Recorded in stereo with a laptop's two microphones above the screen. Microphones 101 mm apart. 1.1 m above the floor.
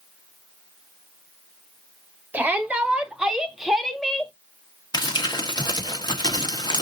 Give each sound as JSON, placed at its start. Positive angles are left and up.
{"t": 2.3, "sound": "a shout", "side_deg": -15, "distance_m": 2.5}
{"t": 4.9, "sound": "crumpling", "side_deg": 45, "distance_m": 1.7}